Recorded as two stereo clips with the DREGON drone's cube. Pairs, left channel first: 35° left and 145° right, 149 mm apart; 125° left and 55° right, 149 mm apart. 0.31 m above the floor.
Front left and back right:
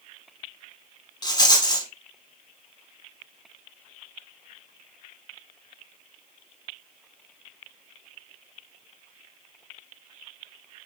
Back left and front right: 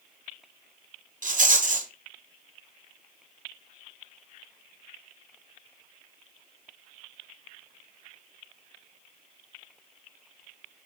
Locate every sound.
1.2 s a rattle: 25° right, 0.7 m